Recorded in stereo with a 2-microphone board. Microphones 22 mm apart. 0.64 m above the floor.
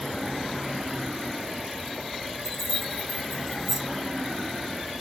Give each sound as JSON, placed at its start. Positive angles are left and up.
{"t": 2.4, "sound": "keys jangling", "side_deg": -15, "distance_m": 2.0}